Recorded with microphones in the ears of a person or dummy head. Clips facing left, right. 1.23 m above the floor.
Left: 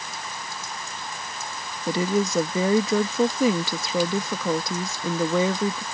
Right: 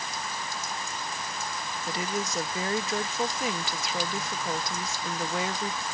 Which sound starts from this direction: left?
A woman speaking, at 1.9 s.